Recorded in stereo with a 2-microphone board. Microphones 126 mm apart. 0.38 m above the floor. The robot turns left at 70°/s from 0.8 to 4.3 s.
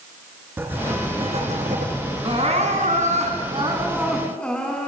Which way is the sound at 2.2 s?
45° right.